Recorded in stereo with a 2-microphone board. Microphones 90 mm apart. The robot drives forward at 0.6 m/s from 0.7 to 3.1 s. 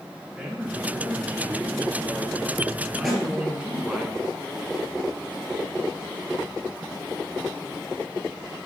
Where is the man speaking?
10° right (ahead or behind), 4.5 m; by 4.0 s 15° right (ahead or behind), 3 m.